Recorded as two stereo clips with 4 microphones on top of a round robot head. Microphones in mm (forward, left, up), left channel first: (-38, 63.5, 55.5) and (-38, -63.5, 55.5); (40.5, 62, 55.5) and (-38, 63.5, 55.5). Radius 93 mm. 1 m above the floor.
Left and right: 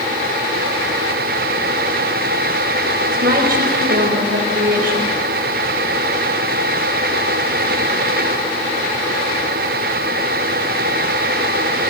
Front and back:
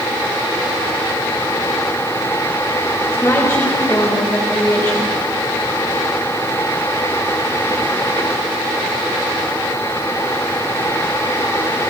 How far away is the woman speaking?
About 4.5 m.